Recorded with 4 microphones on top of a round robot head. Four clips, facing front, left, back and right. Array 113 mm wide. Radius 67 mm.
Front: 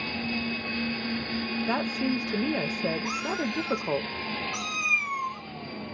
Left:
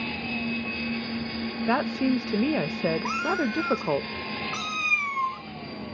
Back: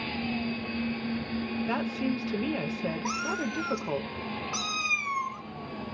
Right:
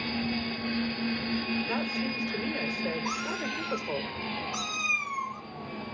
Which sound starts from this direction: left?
A woman speaking, at 1.7 s.